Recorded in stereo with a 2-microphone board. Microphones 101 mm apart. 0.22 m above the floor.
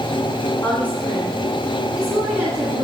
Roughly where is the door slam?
I don't hear a door slam.